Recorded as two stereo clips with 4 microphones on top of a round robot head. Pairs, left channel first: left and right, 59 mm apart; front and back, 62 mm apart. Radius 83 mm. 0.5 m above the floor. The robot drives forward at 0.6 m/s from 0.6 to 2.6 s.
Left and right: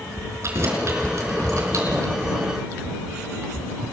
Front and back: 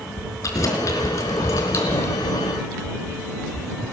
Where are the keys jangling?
40° right, 4.5 m; by 2.1 s 50° right, 4 m.